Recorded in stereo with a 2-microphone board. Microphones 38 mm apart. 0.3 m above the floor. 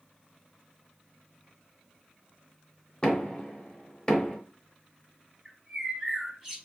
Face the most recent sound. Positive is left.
turn(degrees=-5)  # may be behind; listen again after turning